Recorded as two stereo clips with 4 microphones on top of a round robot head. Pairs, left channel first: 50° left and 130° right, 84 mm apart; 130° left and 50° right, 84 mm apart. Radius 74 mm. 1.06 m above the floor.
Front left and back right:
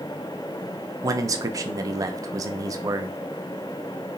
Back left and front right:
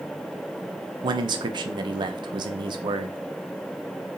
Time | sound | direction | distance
1.0 | a man speaking | 80° right | 0.5 m